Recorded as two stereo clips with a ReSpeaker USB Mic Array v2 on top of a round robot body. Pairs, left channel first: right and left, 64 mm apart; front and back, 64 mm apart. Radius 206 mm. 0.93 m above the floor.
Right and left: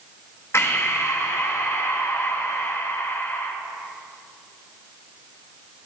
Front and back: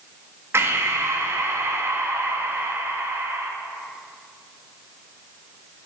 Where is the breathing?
135° right, 1.8 m.